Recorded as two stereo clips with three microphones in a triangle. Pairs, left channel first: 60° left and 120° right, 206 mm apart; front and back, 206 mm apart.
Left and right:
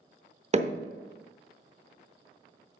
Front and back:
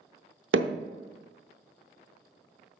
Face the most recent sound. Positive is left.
turn(degrees=-175)